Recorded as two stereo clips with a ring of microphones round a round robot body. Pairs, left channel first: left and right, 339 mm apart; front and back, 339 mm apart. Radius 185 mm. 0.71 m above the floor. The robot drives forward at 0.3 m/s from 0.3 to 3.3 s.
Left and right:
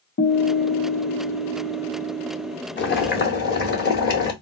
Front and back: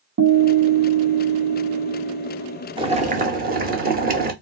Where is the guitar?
140° left, 0.7 m; by 2.5 s 160° left, 1.2 m.